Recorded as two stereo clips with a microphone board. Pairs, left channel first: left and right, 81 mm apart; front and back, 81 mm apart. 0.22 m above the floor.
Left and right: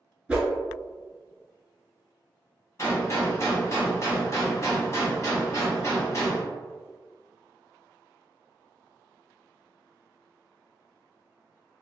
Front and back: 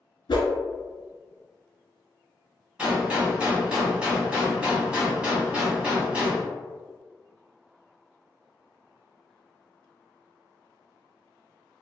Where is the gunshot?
110° left, 0.9 m.